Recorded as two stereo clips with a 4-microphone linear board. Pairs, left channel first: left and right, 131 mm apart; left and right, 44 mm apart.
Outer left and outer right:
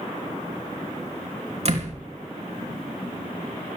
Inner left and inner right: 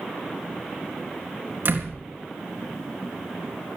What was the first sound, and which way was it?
A door slam, 55° right (ahead or behind).